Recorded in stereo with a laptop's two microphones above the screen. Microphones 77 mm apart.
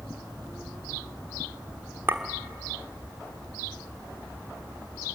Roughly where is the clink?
Right.